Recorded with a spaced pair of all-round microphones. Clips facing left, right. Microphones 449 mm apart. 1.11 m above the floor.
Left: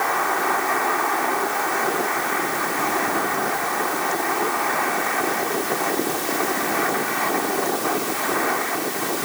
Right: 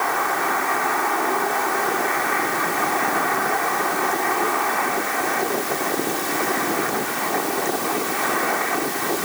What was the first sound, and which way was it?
Only background noise.